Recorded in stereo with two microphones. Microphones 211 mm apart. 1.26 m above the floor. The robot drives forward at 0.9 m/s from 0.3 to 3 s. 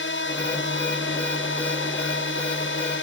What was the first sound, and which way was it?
A drone, 80° left.